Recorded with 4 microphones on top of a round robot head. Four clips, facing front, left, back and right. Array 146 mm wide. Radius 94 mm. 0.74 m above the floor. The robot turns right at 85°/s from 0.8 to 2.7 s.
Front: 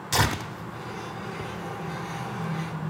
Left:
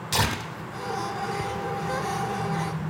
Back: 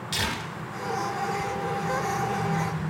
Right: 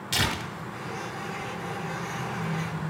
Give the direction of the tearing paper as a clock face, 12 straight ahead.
11 o'clock.